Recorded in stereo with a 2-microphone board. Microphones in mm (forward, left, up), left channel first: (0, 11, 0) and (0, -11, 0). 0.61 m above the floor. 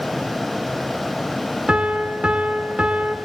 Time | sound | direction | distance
1.7 | a piano | 65° right (ahead or behind) | 1.7 m